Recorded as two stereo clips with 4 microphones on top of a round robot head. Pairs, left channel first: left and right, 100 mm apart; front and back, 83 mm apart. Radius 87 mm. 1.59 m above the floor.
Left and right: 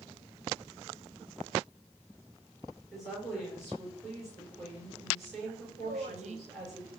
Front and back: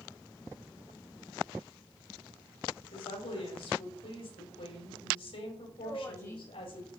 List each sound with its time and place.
2.9 s a woman speaking: straight ahead, 5 m
5.8 s a woman speaking: 70° right, 1.7 m